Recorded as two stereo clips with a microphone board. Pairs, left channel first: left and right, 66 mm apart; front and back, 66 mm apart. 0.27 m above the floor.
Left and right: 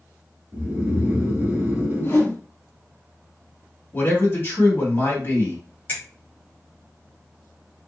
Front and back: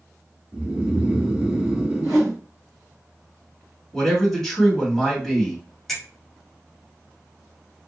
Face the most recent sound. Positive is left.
turn(degrees=80)